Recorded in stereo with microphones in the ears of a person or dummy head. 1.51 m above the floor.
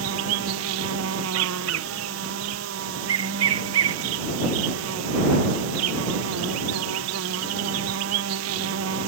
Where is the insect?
70° right (ahead or behind).